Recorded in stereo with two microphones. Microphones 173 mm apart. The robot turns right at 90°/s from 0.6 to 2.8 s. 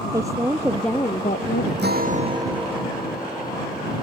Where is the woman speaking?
20° right; by 1.7 s 80° left.